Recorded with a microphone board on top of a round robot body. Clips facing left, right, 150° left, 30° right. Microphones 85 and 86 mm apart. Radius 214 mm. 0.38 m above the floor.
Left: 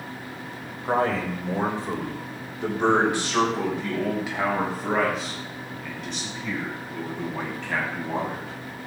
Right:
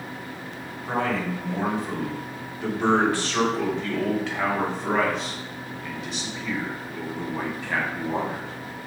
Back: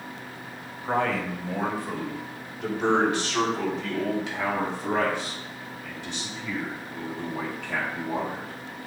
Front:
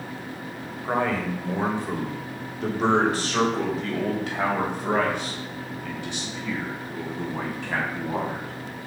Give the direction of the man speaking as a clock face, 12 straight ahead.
10 o'clock.